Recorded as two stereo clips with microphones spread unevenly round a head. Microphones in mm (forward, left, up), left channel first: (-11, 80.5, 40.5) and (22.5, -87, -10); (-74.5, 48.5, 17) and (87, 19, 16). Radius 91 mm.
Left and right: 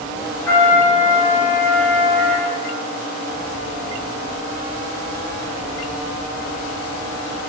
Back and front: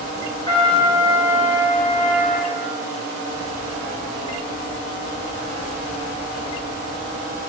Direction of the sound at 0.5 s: 110° left.